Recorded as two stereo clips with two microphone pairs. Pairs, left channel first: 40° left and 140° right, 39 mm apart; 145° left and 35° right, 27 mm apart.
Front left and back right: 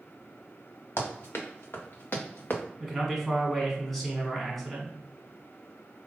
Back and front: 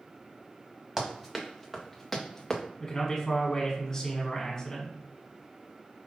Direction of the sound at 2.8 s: 125° left.